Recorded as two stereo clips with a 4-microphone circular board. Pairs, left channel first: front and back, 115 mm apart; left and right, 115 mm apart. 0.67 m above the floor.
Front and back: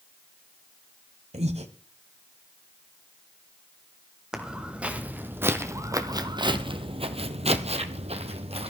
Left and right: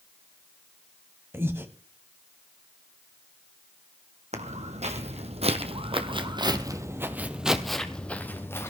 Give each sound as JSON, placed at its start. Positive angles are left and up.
{"t": 1.3, "sound": "breathing", "azimuth_deg": -160, "distance_m": 1.6}
{"t": 4.3, "sound": "footsteps", "azimuth_deg": -95, "distance_m": 2.5}